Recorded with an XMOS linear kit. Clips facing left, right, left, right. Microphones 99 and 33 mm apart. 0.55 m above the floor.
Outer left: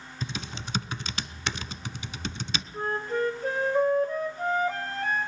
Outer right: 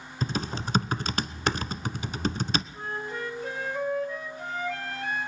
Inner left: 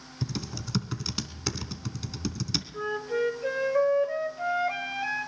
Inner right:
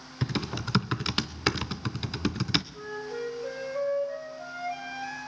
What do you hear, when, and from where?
0.2 s typing on a keyboard: 45° right (ahead or behind), 0.8 m
2.7 s a flute: 40° left (ahead or behind), 2.5 m